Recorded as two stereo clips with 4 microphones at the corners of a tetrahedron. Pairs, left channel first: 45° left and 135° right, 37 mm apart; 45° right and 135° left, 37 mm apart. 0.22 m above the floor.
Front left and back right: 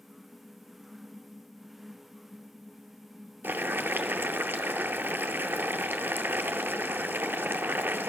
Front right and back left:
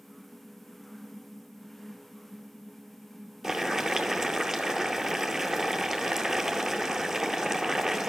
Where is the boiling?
150° right, 0.7 m.